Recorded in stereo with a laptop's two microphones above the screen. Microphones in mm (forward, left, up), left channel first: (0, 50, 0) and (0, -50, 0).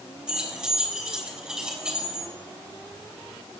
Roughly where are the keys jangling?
Centre.